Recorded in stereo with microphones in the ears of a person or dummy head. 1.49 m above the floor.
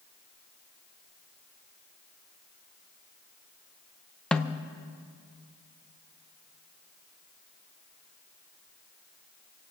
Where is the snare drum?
Centre (ahead or behind), 0.6 m.